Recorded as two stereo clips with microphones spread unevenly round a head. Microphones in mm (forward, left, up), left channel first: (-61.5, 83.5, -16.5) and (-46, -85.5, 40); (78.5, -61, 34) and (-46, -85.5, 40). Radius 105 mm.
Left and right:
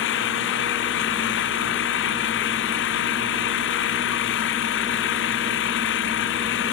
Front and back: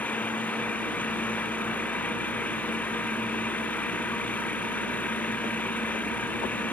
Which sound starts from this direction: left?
An engine running, at 0.0 s.